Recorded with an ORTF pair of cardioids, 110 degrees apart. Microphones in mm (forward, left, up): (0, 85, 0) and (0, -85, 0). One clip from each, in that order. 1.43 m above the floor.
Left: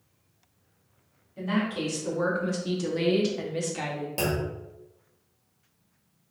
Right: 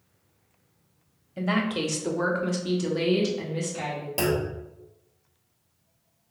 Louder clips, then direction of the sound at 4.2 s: Right 3 dB; 15° right.